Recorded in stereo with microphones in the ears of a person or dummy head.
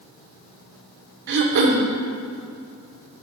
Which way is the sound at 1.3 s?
55° right (ahead or behind).